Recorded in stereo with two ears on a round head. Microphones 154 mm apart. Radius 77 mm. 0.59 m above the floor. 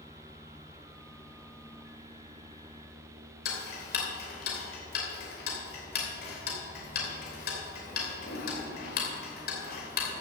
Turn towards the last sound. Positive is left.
turn(degrees=60)  # may be behind; listen again after turning